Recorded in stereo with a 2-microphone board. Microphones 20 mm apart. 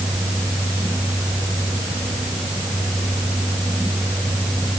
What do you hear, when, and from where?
Only background noise.